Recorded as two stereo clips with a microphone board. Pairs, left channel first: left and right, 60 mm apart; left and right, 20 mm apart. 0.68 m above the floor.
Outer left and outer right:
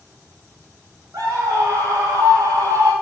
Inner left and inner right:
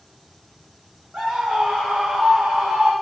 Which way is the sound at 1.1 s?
80° right.